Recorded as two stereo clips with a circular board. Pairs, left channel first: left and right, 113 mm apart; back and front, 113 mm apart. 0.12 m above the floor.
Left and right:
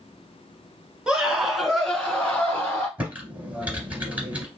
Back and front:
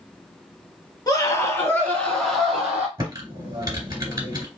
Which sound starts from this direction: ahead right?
Typing on a keyboard, at 3.0 s.